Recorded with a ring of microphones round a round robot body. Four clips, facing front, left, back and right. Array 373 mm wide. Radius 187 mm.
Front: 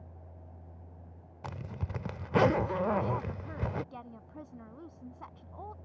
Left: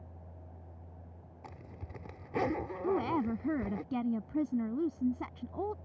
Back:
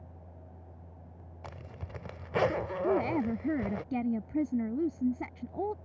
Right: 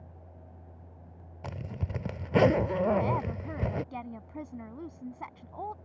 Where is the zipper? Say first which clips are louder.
Right 11 dB, front 5 dB; 65° right.